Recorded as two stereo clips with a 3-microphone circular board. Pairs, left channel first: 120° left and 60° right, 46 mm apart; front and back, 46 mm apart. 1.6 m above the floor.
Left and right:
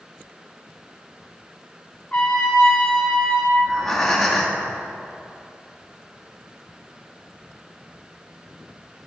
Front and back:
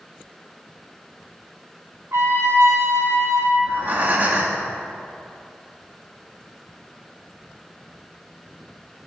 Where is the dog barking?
I don't hear a dog barking.